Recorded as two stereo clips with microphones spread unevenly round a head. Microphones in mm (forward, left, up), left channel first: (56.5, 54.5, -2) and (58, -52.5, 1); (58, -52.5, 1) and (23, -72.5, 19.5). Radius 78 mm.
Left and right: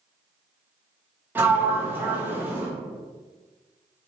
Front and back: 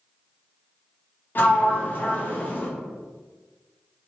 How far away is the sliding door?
About 0.9 m.